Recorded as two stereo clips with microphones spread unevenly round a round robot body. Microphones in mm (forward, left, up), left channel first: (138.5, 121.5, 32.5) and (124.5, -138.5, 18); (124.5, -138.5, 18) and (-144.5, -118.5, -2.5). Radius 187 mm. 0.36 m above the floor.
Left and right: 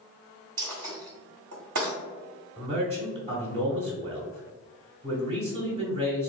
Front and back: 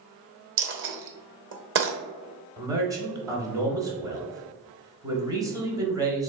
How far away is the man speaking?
About 1.0 m.